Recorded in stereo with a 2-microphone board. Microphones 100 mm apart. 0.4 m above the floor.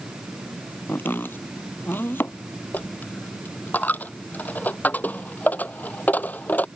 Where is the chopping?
20° left (ahead or behind).